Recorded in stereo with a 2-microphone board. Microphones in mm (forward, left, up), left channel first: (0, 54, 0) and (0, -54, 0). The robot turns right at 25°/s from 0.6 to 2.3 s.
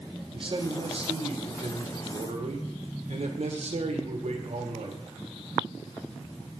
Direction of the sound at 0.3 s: 125° right.